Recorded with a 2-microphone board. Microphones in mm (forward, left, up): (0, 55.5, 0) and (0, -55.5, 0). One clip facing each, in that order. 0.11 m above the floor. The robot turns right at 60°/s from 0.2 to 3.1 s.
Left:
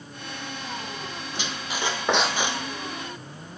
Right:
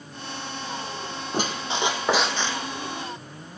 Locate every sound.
1.3 s a squeak: 50° right, 1.2 m; by 2.6 s 25° left, 1.2 m